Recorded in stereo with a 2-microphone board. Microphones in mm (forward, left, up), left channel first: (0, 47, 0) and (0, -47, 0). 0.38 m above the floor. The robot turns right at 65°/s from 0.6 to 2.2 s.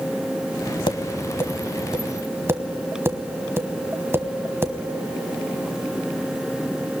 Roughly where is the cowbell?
No cowbell in this recording.